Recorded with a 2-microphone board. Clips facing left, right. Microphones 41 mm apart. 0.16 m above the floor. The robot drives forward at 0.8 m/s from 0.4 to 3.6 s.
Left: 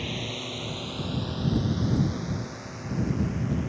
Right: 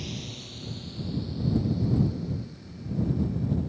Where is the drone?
40° left (ahead or behind); by 3.7 s 80° left.